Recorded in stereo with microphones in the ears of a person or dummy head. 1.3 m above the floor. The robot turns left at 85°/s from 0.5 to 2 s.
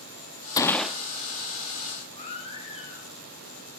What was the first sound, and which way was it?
A gunshot, 25° left.